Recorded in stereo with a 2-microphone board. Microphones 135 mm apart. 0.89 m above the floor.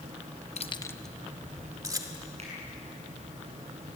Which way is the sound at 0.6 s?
55° left (ahead or behind).